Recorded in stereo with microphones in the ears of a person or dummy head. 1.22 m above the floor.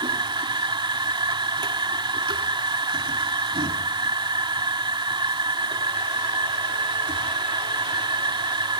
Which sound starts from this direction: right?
A machine running, at 0.0 s.